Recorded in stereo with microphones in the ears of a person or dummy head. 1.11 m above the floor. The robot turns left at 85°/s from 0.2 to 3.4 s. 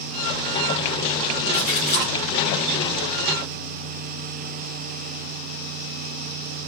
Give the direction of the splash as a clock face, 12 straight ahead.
9 o'clock.